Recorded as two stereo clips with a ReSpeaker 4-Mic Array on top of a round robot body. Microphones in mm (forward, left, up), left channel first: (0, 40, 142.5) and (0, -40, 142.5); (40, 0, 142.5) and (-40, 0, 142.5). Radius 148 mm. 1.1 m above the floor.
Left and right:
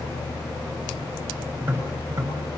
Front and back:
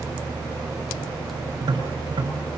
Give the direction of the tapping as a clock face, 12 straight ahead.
5 o'clock.